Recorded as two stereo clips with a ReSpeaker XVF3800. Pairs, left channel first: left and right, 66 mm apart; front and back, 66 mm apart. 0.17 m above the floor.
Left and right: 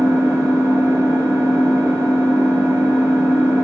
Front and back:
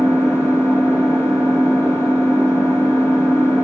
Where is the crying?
No crying in this recording.